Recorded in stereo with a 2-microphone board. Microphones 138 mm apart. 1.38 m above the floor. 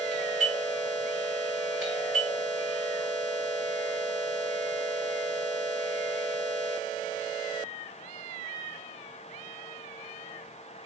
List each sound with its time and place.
0.1 s a doorbell: centre (ahead or behind), 4 m